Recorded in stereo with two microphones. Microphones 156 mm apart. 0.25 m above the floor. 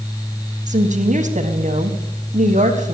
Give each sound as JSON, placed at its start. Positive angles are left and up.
{"t": 0.7, "sound": "a woman speaking", "side_deg": -50, "distance_m": 1.8}